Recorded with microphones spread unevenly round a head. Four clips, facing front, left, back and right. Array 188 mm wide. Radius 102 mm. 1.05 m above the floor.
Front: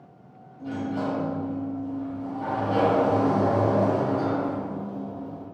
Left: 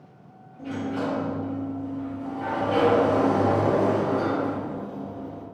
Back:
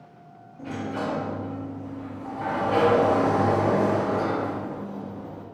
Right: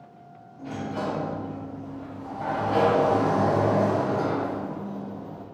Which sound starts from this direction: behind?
A sliding door, at 0.6 s.